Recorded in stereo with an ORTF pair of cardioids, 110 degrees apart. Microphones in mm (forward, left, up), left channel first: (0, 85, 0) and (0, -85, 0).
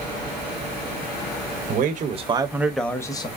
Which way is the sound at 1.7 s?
65° right.